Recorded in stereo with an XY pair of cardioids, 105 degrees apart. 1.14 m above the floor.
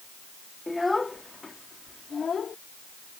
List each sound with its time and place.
0.7 s a child speaking: 10° left; by 2.6 s 45° left